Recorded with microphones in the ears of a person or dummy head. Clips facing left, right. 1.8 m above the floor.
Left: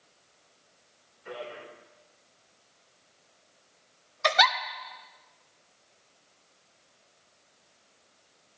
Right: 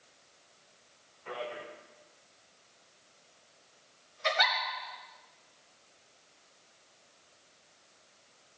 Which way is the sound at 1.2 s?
20° left (ahead or behind).